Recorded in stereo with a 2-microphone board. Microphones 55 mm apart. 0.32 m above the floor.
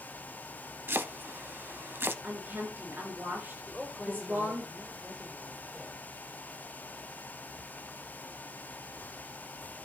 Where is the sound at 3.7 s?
Centre (ahead or behind), 8 m.